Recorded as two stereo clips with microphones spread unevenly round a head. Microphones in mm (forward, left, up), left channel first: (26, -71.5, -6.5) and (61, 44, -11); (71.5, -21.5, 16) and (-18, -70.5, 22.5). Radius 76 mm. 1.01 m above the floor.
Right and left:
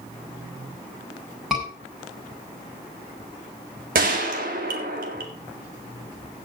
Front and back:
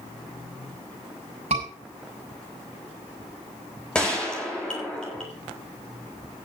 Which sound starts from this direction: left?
A gunshot, at 4.0 s.